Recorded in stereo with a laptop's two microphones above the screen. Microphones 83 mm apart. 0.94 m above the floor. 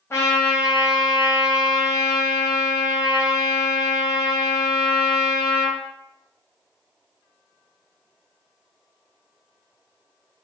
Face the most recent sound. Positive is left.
turn(degrees=30)  # may be behind; listen again after turning